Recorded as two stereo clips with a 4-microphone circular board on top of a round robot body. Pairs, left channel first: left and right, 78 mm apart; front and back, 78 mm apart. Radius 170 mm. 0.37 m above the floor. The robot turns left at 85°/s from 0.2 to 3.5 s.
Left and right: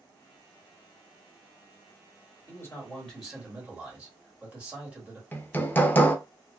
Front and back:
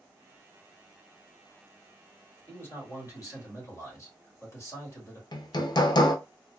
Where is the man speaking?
65° left, 1.9 m; by 5.2 s 25° right, 1.9 m.